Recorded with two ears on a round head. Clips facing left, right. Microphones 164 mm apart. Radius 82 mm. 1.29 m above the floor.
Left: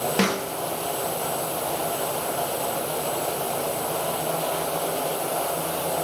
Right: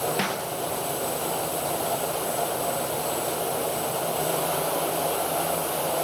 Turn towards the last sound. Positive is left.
turn(degrees=60)  # may be behind; listen again after turning